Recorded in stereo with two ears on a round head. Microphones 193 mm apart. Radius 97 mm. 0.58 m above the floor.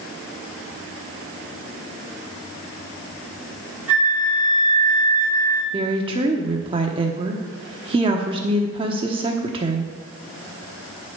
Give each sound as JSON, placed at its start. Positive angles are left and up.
{"t": 3.9, "sound": "a flute", "side_deg": -10, "distance_m": 3.5}
{"t": 5.7, "sound": "a woman speaking", "side_deg": -25, "distance_m": 1.1}